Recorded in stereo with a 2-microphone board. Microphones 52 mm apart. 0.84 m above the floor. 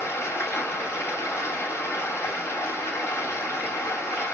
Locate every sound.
0.0 s running water: 65° left (ahead or behind), 3.5 m